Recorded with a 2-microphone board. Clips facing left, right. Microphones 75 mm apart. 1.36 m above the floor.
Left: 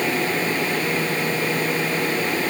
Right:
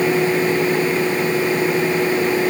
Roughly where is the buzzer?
No buzzer in this recording.